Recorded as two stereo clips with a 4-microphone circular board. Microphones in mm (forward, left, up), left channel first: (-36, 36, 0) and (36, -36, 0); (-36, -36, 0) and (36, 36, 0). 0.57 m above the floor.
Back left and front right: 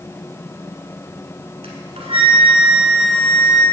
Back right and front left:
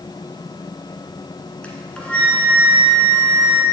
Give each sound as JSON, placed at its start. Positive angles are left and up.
{"t": 1.6, "sound": "a flute", "azimuth_deg": -55, "distance_m": 1.4}